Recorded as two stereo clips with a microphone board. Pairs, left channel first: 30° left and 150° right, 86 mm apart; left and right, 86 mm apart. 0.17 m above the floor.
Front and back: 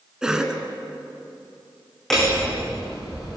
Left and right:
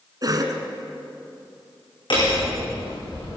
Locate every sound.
0.2 s a cough: 70° right, 2 m
2.1 s hammering: 115° left, 8.5 m